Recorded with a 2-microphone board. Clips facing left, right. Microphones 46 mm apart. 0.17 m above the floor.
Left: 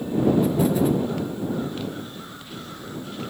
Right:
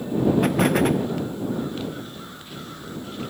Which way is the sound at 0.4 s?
65° right (ahead or behind).